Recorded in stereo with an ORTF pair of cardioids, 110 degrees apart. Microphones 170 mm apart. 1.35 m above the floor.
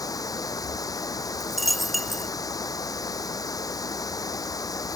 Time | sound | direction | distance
0.0 | running water | 20° left | ?
1.4 | a dropped coin | straight ahead | ?